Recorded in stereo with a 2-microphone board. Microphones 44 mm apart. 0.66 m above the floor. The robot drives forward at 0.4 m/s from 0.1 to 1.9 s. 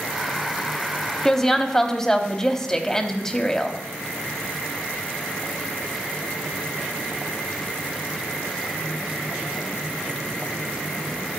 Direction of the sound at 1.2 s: 10° left (ahead or behind).